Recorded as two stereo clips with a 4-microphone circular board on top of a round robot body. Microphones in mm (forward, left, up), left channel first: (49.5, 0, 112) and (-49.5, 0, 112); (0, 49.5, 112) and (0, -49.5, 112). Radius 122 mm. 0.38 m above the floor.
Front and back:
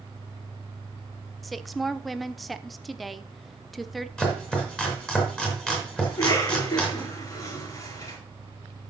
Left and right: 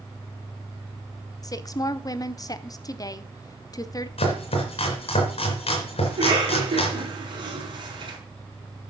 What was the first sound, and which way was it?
A woman speaking, 90° left.